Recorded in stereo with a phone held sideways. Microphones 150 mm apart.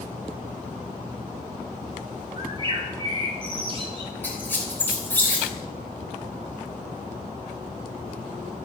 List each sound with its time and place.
2.4 s a bird: 40° right (ahead or behind), 2.0 m
4.2 s a squeak: 15° left (ahead or behind), 3 m